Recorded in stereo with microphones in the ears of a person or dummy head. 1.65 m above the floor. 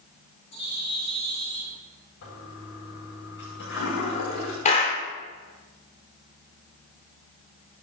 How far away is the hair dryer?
No hair dryer in this recording.